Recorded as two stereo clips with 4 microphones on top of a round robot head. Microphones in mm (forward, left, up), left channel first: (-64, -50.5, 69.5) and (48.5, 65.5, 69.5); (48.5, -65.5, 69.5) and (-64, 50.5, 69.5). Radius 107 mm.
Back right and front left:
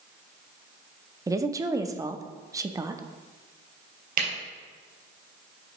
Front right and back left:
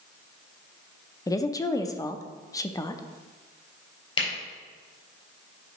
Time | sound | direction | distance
1.3 | a woman speaking | straight ahead | 0.6 m
4.2 | a camera shutter | 15° left | 3.5 m